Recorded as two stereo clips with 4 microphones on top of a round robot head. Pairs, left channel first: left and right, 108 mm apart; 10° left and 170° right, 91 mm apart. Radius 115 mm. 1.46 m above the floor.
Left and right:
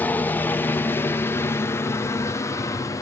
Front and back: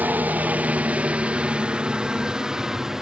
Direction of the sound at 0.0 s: 140° left.